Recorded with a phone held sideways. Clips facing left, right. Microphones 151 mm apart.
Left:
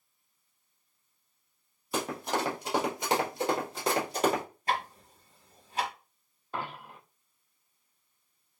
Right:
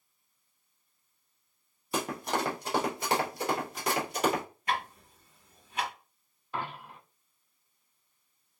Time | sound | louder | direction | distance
1.9 | running footsteps | even | centre (ahead or behind) | 1.7 m
4.7 | ticking | left 1 dB | 35° left (ahead or behind) | 1.4 m
6.5 | a dropped coin | even | 40° left (ahead or behind) | 2.0 m